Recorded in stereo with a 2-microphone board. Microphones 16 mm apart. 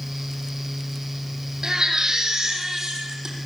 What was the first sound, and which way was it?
A baby crying, 40° right (ahead or behind).